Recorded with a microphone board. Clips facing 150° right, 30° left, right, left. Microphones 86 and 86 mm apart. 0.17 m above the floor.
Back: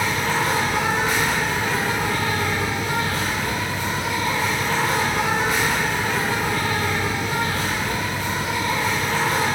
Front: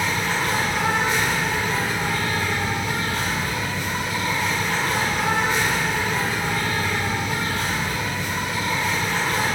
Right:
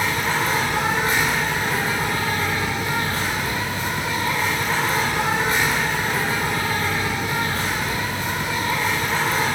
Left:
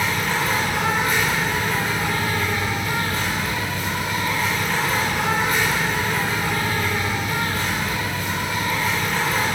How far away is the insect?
About 2 m.